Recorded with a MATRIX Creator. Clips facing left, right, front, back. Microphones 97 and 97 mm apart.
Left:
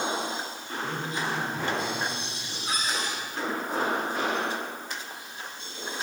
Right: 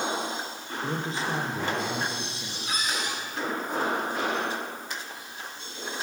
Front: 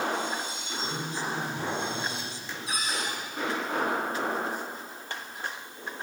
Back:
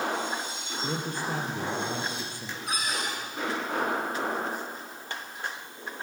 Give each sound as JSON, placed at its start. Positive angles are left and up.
{"t": 0.8, "sound": "a man speaking", "azimuth_deg": -150, "distance_m": 4.0}
{"t": 2.7, "sound": "a cupboard door", "azimuth_deg": 145, "distance_m": 7.5}